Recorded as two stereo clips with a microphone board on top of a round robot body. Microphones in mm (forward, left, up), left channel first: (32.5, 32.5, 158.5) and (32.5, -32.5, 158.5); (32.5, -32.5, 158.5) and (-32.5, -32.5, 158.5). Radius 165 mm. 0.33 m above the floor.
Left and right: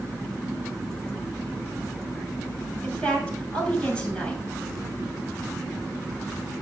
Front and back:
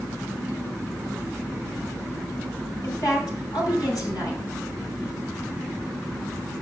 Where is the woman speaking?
15° left, 7 m.